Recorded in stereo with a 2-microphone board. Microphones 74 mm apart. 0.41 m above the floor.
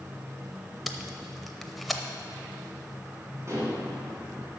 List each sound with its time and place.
0.9 s tape being pulled: centre (ahead or behind), 0.6 m
3.5 s dishes clattering: 40° right (ahead or behind), 2 m